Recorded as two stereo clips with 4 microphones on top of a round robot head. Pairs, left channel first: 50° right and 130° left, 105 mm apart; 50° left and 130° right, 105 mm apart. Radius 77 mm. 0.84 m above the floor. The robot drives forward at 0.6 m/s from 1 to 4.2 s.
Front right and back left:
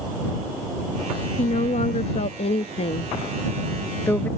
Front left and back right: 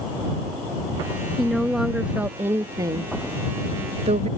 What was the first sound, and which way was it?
A woman speaking, 35° right.